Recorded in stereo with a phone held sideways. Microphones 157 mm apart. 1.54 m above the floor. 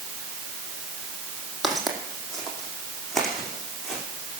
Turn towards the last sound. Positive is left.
turn(degrees=0)  # may be behind; listen again after turning